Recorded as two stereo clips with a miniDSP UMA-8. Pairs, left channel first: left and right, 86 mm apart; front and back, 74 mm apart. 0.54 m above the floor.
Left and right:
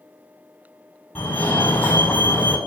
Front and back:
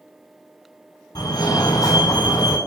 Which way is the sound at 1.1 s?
25° left.